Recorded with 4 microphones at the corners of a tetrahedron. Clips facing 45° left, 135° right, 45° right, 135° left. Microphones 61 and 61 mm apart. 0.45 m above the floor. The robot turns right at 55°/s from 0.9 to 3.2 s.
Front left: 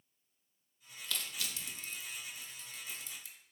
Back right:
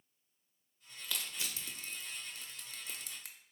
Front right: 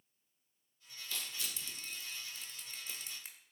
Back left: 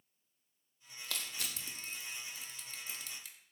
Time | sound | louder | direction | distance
1.0 | crushing | even, back left 1 dB | 145° left | 0.5 m